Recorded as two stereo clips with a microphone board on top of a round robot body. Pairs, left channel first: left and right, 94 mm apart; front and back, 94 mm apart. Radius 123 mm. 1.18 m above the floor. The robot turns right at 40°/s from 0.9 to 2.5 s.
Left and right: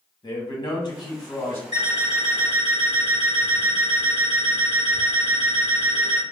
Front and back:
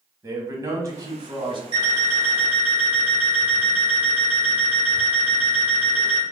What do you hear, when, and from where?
0.2 s a man speaking: 130° left, 1.2 m; by 1.6 s 155° left, 1.2 m
1.7 s an alarm clock: 135° right, 1.8 m; by 6.2 s 105° right, 1.8 m